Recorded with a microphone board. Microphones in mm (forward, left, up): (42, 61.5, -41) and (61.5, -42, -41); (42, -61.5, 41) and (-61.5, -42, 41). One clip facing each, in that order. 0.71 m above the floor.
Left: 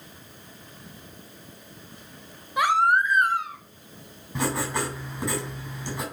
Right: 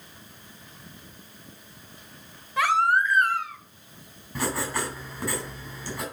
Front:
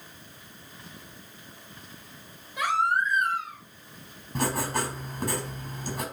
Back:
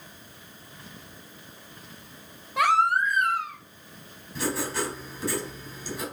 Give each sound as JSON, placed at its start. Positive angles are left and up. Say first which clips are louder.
{"t": 2.6, "sound": "a baby crying", "louder": "left 1 dB, back 4 dB", "azimuth_deg": 170, "distance_m": 1.3}
{"t": 4.3, "sound": "writing", "louder": "left 2 dB, front 1 dB", "azimuth_deg": 30, "distance_m": 4.0}